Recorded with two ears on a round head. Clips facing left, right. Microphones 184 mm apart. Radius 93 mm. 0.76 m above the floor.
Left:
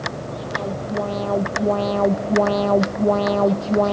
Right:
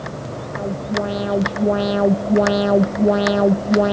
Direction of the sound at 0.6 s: 15° right (ahead or behind).